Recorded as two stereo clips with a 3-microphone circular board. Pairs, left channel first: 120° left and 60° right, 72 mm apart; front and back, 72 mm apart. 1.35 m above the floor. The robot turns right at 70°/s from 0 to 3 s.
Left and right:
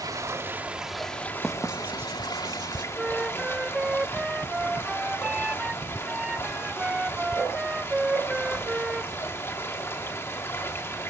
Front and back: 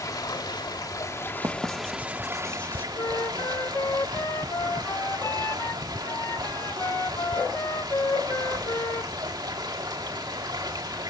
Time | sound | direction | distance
0.0 | running water | 35° right | 2 m
1.4 | writing | 155° right | 2 m
3.0 | a flute | 10° left | 0.6 m